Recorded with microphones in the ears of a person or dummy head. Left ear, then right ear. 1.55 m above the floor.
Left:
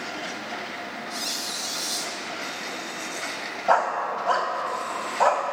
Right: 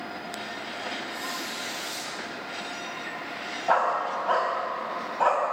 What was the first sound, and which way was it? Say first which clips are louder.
A squeak: left 3 dB; 30° left (ahead or behind).